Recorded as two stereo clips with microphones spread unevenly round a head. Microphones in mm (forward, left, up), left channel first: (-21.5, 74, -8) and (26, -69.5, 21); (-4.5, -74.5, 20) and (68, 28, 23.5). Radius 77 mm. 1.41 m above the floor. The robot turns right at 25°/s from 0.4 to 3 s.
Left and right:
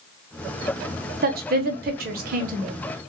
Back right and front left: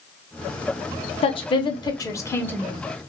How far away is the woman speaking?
About 0.7 m.